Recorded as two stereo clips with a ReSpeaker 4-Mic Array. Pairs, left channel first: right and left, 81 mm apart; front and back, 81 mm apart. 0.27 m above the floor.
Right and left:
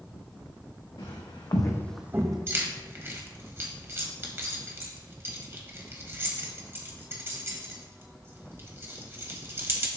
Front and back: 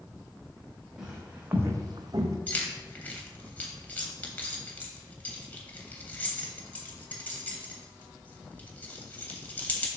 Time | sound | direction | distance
1.0 | footsteps | 100° right | 1.4 m
2.5 | keys jangling | 55° left | 0.7 m